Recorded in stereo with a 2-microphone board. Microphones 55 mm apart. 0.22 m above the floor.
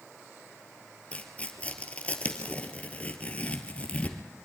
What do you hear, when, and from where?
1.1 s tearing paper: 25° left (ahead or behind), 1.8 m